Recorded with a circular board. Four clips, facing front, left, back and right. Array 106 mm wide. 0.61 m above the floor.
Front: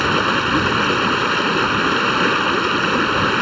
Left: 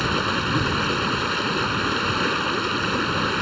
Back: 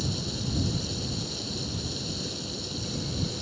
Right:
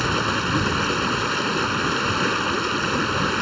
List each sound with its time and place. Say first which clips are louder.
0.0 s running water: right 1 dB, front 16 dB; 5° right